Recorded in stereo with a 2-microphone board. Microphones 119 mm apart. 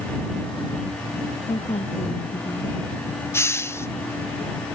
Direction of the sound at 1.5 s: 65° left (ahead or behind).